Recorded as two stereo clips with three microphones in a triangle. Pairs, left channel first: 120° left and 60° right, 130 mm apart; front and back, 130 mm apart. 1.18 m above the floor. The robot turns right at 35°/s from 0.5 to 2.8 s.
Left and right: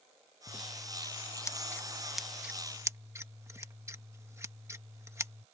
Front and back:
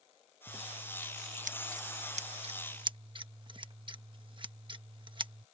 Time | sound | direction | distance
0.5 | scissors | 150° left | ?